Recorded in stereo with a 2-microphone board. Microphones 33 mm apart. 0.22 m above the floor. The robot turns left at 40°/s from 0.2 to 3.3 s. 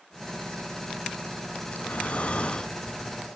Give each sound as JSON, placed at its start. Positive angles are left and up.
{"t": 1.7, "sound": "breathing", "azimuth_deg": 75, "distance_m": 0.5}